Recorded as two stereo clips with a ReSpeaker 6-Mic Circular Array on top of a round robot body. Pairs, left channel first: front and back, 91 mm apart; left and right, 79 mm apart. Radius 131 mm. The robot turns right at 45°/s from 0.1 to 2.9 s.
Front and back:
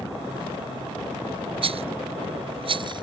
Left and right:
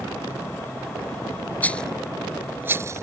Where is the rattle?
160° left; by 3.0 s 145° right.